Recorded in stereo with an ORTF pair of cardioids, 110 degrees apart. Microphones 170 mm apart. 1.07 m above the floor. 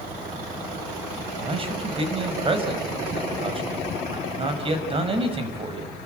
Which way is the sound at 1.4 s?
30° right.